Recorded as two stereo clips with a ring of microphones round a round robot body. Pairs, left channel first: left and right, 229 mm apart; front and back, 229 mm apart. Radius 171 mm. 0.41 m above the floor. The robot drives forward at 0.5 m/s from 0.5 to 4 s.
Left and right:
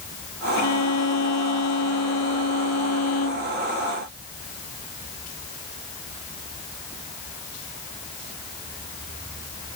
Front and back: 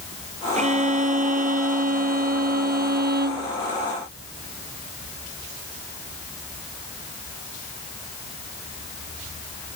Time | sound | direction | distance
0.6 | a violin | 120° left | ?